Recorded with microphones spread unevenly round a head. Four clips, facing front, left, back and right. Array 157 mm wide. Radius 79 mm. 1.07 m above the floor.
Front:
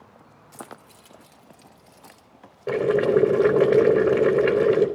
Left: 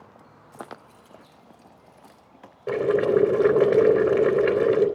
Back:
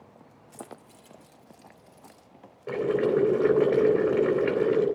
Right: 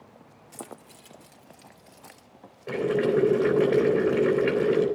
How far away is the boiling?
About 3 m.